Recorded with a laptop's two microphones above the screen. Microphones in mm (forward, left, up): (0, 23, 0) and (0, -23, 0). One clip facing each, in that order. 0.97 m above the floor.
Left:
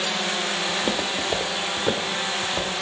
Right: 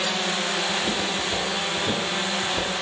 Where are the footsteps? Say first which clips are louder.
Even; 40° left (ahead or behind), 1.3 m; by 2.7 s 55° left (ahead or behind), 1.8 m.